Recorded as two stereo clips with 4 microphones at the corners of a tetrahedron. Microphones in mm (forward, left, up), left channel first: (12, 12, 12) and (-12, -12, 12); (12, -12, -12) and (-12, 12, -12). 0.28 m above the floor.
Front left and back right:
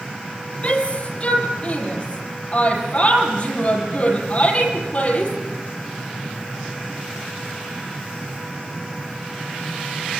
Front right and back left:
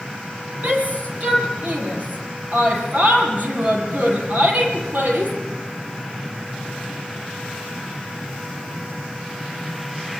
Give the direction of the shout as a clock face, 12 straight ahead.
9 o'clock.